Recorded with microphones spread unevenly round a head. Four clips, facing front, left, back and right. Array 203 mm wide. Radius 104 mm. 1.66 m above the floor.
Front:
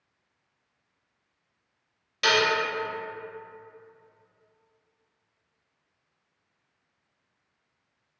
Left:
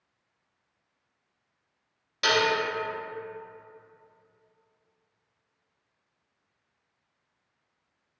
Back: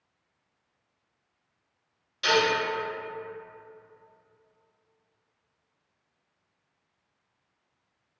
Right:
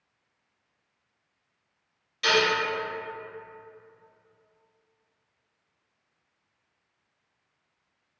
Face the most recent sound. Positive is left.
turn(degrees=45)